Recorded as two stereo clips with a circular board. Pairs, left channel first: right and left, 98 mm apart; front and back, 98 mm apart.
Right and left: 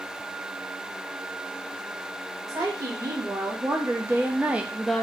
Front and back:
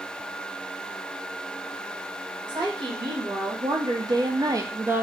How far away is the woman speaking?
About 1.5 m.